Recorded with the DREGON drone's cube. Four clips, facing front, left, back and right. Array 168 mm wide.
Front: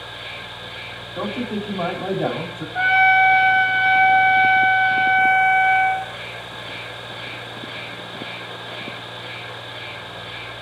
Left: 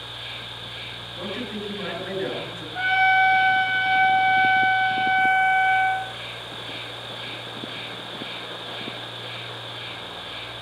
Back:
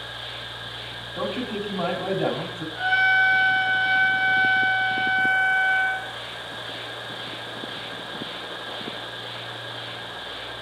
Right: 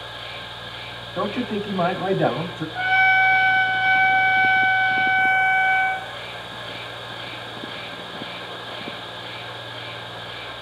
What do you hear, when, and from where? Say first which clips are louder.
0.0 s an insect: right 4 dB, front 2 dB; 15° right, 5.5 m
1.1 s a man speaking: right 8 dB, front 2 dB; 75° right, 3.5 m
2.8 s a trumpet: even, front 6 dB; 5° right, 2.5 m